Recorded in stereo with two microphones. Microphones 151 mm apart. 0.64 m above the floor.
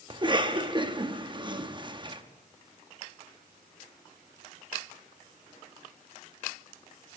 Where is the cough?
30° right (ahead or behind), 0.7 m.